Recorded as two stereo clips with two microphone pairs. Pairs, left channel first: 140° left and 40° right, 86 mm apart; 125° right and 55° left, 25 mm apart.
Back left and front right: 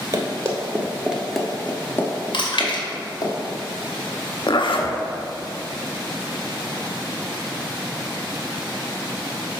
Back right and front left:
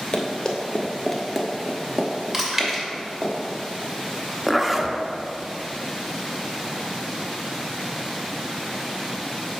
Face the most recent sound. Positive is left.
turn(degrees=135)